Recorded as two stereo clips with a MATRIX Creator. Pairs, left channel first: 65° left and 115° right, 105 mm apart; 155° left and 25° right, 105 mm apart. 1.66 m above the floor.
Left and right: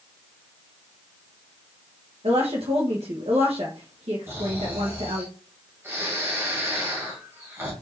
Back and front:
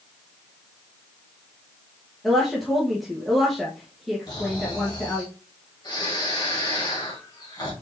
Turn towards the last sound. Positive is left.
turn(degrees=-170)